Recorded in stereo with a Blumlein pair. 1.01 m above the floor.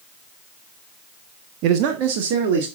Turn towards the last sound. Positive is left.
turn(degrees=-40)